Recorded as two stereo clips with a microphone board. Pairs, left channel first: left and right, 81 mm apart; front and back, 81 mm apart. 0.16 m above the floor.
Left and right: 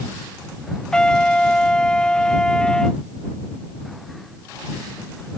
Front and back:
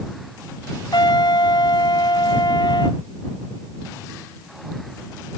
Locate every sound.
0.9 s a trumpet: 10° left